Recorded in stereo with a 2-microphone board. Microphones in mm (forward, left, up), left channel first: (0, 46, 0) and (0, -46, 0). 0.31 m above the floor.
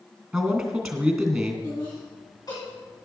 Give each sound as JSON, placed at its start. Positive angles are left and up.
{"t": 0.3, "sound": "a man speaking", "side_deg": -5, "distance_m": 2.5}
{"t": 1.6, "sound": "laughter", "side_deg": 45, "distance_m": 2.5}